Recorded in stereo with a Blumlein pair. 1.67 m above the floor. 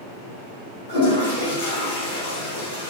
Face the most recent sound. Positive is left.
turn(degrees=65)